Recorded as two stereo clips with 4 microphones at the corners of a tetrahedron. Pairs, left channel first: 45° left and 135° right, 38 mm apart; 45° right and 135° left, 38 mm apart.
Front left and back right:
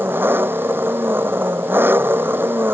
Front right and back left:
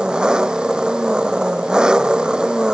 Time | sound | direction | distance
0.0 | an engine running | 155° right | ?